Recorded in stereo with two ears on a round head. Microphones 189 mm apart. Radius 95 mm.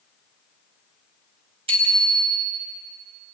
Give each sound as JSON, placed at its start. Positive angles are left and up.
{"t": 1.7, "sound": "a bicycle bell", "side_deg": -30, "distance_m": 4.5}